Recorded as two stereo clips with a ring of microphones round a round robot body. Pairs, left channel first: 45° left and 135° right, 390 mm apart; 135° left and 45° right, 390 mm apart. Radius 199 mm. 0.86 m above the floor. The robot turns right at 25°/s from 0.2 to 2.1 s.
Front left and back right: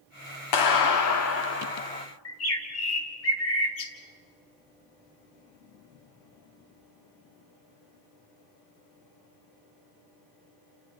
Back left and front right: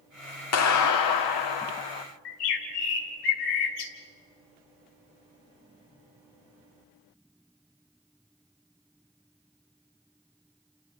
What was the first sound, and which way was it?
A clap, 80° left.